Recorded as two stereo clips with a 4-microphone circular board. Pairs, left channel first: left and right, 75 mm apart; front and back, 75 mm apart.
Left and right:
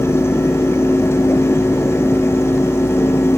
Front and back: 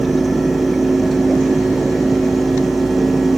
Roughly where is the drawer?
I don't hear a drawer.